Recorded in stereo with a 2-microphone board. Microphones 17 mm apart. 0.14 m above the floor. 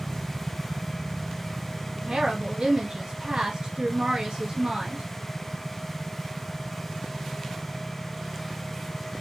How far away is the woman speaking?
About 1.8 m.